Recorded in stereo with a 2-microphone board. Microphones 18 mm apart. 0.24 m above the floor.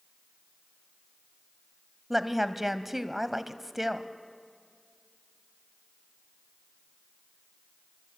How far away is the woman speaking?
About 1.2 m.